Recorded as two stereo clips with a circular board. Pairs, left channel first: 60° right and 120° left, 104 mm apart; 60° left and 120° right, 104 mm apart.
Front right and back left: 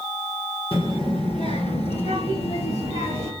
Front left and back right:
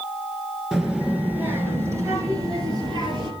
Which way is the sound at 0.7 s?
35° right.